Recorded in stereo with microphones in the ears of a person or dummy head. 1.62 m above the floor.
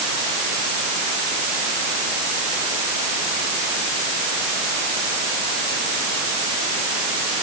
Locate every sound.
Only background noise.